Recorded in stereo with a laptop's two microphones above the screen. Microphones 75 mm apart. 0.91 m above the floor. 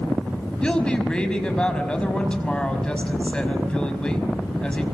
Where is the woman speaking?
10° left (ahead or behind), 5.5 m.